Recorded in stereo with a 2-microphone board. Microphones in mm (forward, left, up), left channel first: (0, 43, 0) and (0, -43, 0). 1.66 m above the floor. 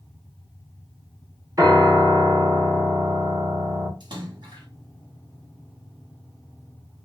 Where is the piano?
45° right (ahead or behind), 1.1 m.